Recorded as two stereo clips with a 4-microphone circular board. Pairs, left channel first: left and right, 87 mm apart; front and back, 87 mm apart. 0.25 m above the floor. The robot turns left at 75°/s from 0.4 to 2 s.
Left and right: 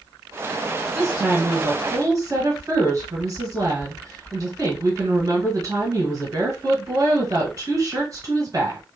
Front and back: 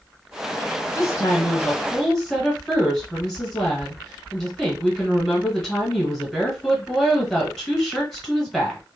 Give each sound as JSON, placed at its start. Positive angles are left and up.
{"t": 0.9, "sound": "a woman speaking", "azimuth_deg": -5, "distance_m": 1.3}